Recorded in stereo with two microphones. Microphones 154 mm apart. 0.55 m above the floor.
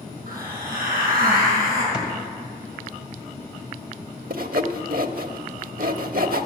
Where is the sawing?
70° right (ahead or behind), 0.8 m.